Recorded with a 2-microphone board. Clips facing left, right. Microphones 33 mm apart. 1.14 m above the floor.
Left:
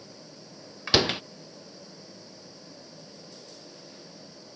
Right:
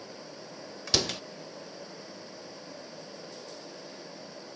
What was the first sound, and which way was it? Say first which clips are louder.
A door slam: left 6 dB; 30° left (ahead or behind).